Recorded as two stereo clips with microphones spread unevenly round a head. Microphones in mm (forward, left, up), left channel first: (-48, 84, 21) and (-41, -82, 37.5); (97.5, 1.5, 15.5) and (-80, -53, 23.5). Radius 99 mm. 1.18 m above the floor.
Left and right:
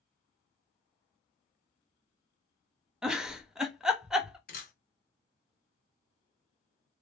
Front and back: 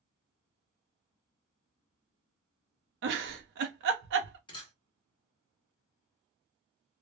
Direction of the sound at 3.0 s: 175° right.